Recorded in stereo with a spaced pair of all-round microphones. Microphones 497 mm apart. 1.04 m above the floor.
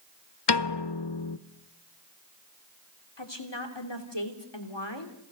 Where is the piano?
55° left (ahead or behind), 0.7 m.